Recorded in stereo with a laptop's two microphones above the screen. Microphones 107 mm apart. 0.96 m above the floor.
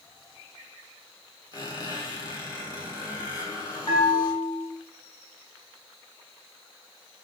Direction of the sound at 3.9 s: 55° left (ahead or behind).